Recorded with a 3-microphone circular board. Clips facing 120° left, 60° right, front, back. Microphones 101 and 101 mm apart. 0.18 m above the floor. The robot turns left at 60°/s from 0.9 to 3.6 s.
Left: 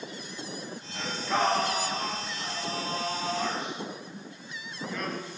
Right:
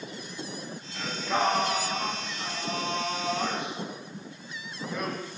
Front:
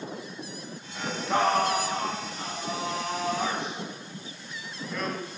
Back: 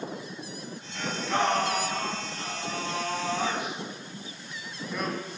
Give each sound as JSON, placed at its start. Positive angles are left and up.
{"t": 0.9, "sound": "singing", "azimuth_deg": 50, "distance_m": 0.6}